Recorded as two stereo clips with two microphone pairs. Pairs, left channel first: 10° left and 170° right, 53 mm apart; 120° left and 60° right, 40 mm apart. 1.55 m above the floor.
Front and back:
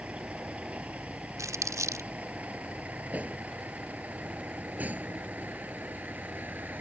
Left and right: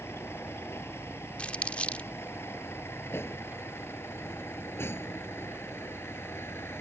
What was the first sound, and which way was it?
A vehicle, 130° left.